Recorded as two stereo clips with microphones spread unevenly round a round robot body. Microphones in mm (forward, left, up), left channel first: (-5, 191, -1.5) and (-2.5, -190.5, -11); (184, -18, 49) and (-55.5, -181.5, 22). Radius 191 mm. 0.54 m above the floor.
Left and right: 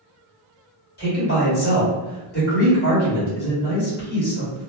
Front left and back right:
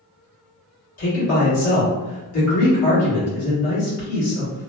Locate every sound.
1.0 s a man speaking: 30° left, 1.5 m